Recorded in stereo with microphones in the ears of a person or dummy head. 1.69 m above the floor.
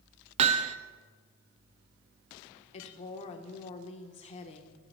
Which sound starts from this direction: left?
A woman speaking, at 2.7 s.